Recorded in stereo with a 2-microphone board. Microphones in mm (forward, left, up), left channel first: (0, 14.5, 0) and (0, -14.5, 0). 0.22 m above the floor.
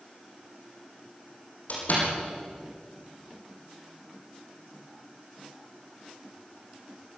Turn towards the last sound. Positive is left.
turn(degrees=60)  # may be behind; listen again after turning